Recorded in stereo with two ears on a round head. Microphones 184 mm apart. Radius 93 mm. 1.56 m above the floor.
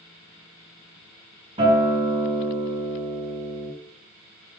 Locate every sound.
1.6 s a guitar: 25° right (ahead or behind), 5 m